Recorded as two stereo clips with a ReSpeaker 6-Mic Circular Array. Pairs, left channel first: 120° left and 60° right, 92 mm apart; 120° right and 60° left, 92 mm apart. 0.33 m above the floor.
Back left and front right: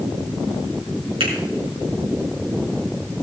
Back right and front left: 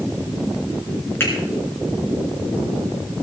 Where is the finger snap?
55° right, 4.5 m.